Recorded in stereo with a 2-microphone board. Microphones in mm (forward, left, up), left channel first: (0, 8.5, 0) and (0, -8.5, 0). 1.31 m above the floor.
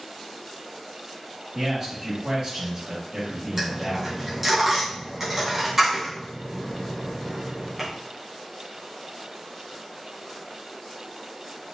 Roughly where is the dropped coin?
Centre.